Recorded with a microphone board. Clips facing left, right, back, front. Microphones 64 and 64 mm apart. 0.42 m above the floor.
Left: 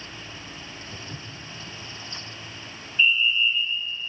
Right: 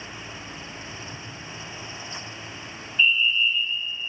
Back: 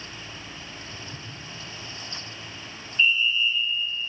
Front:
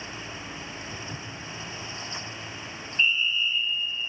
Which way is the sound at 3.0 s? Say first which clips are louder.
Even, back 3 dB; 5° left.